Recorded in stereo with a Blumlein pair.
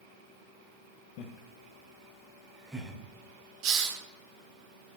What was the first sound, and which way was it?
Laughter, 40° left.